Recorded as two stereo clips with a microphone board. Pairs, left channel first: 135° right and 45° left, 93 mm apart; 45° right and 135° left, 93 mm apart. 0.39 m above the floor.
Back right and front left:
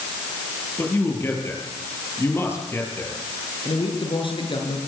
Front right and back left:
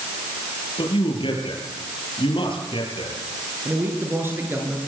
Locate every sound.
0.8 s a man speaking: 70° right, 7.5 m
3.6 s a man speaking: 160° right, 7.5 m